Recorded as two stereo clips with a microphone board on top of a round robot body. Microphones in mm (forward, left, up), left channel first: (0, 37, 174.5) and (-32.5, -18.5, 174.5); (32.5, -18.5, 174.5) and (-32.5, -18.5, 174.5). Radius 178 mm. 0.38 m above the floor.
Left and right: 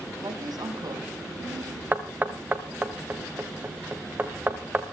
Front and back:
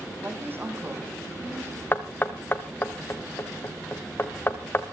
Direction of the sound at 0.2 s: 120° right.